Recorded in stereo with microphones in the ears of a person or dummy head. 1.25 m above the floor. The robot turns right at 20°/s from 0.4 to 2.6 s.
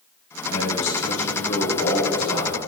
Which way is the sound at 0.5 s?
110° left.